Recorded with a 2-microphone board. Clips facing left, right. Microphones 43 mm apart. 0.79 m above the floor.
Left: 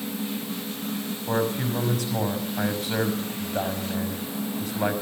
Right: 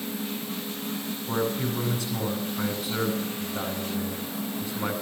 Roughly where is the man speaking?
Left.